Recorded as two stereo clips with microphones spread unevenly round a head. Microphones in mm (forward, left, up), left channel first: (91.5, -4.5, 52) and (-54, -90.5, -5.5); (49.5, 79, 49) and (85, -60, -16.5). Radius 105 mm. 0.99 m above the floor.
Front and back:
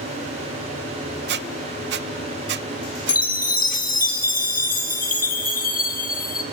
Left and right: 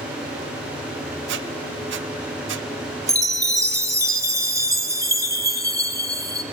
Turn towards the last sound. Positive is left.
turn(degrees=-10)